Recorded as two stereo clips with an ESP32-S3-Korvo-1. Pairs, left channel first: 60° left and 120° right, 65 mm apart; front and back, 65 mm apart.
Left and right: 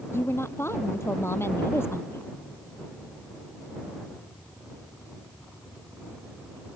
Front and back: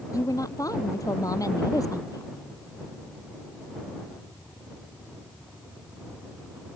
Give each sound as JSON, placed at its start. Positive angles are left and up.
{"t": 0.1, "sound": "a woman speaking", "azimuth_deg": 15}